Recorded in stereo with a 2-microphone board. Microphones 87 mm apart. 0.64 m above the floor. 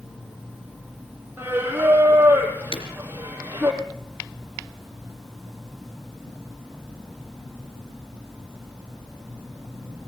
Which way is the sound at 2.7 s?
70° left (ahead or behind).